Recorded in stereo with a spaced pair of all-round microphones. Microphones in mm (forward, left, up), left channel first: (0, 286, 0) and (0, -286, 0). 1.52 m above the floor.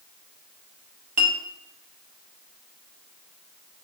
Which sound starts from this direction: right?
A clink, at 1.2 s.